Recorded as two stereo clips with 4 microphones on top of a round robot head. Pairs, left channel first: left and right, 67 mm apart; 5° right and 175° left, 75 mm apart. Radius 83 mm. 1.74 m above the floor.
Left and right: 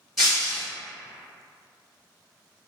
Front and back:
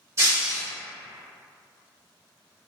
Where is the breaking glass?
Straight behind, 0.8 m.